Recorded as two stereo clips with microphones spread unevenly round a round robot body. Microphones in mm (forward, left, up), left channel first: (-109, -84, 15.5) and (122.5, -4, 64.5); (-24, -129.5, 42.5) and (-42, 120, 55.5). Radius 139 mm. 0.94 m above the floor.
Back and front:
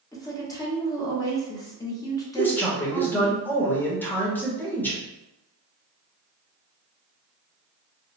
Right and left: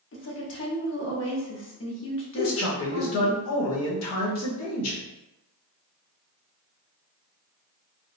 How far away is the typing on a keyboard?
I don't hear typing on a keyboard.